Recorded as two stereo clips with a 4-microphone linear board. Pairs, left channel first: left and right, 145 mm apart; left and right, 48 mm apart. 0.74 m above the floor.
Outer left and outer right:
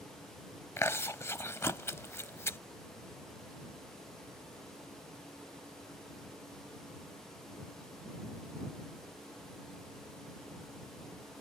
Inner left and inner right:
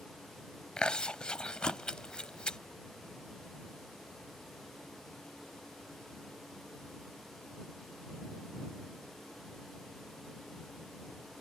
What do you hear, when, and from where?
0.8 s chewing: 20° left (ahead or behind)